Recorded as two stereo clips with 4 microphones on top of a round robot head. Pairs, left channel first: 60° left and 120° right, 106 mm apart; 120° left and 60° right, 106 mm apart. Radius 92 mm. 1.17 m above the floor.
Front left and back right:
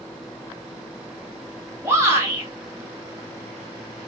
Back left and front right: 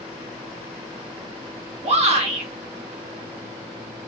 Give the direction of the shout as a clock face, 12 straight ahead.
2 o'clock.